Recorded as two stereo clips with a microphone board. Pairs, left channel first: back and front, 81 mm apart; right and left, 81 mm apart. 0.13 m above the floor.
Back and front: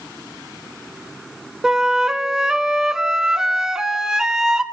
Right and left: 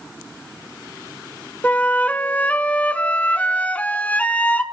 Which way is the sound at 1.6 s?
65° right.